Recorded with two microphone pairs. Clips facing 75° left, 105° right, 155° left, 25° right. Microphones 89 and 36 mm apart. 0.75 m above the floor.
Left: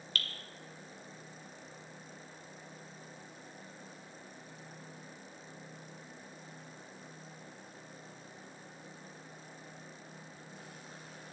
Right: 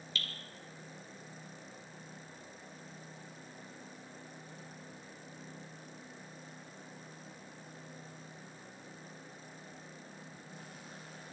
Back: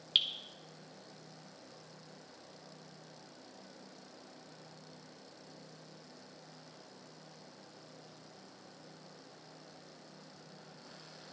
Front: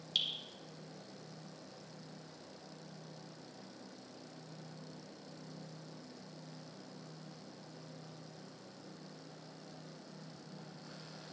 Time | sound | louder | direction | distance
0.1 | dripping | left 2 dB, back 5 dB | 110° left | 1.3 m